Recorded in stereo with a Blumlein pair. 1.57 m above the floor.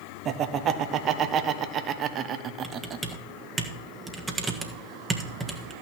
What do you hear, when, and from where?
0.2 s laughter: 30° right, 1.0 m
2.6 s typing on a keyboard: 10° right, 1.3 m